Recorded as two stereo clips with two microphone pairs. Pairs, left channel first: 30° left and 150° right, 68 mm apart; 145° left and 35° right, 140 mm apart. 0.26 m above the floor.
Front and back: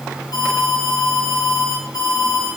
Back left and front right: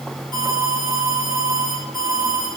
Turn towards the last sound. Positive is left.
turn(degrees=20)